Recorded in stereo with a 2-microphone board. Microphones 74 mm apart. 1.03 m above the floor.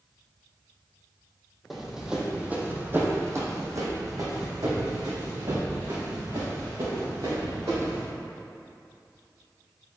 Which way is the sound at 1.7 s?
Centre (ahead or behind).